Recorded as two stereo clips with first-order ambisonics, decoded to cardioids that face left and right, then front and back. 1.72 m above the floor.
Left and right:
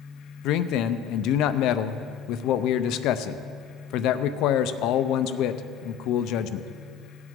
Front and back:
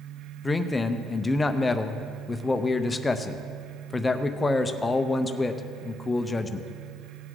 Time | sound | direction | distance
0.4 | a man speaking | 75° left | 0.5 m